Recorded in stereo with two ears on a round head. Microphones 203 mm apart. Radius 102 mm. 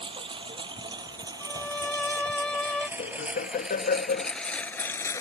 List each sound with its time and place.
0.0 s a lawn mower: 25° right (ahead or behind); by 5.2 s 15° left (ahead or behind)
1.4 s a violin: 5° left (ahead or behind)
3.0 s laughter: 40° left (ahead or behind)